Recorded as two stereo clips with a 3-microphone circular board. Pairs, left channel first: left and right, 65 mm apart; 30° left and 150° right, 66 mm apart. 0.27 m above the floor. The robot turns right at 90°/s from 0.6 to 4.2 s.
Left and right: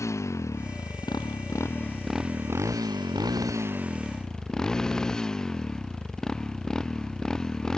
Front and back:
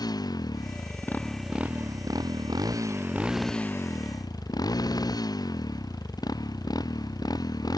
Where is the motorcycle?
45° left; by 7.8 s 10° left.